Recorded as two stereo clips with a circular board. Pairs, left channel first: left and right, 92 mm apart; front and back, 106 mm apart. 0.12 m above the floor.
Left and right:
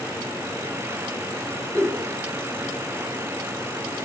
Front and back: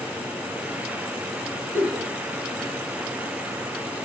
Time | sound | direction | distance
1.7 | a giggle | 125° right | 1.3 m